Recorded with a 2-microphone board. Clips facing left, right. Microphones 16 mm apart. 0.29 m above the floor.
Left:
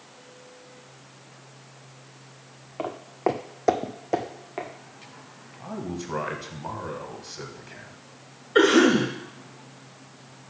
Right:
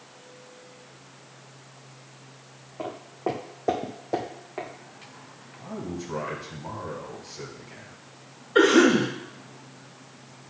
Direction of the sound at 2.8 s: 55° left (ahead or behind).